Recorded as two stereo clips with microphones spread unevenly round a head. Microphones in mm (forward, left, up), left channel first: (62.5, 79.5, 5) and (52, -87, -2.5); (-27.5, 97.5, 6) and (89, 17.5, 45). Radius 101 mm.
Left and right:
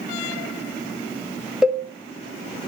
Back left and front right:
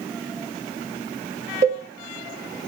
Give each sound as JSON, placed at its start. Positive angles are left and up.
{"t": 1.6, "sound": "a cowbell", "azimuth_deg": -5, "distance_m": 0.6}